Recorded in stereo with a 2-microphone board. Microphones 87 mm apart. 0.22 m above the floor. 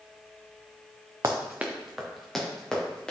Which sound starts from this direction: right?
Running footsteps, at 1.2 s.